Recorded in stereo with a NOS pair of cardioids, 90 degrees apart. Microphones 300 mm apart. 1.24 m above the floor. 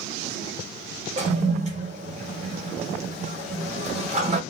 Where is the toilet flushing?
25° right, 1.4 m.